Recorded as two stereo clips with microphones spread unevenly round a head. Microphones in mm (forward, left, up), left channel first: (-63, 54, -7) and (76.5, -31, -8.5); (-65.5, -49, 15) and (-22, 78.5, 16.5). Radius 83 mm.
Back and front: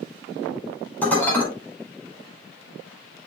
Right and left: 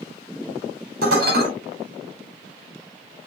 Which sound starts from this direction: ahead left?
Dishes clattering, at 1.0 s.